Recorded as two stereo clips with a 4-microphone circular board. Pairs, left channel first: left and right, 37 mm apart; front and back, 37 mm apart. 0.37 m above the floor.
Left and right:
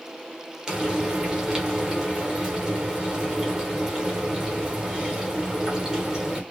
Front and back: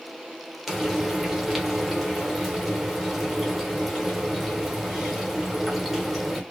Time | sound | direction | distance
0.7 | frying | 85° right | 0.9 m